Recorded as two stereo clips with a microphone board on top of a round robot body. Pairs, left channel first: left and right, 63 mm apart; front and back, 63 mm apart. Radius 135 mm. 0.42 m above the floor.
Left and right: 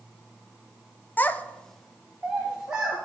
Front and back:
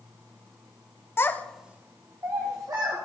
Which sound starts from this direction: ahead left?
A child speaking, at 1.2 s.